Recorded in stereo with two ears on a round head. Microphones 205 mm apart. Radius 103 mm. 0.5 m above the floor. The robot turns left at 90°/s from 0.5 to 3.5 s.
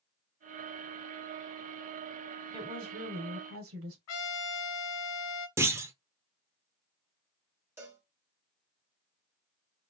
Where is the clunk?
10° right (ahead or behind), 0.8 m.